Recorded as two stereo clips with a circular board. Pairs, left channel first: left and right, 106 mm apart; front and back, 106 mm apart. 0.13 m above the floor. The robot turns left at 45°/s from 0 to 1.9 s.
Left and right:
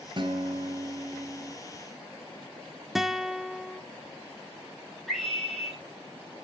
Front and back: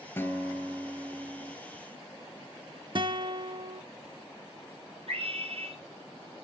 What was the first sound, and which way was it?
A guitar, 65° right.